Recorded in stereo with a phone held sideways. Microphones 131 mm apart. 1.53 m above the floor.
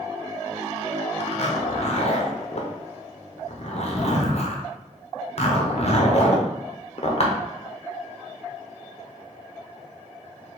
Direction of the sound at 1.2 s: 55° left (ahead or behind).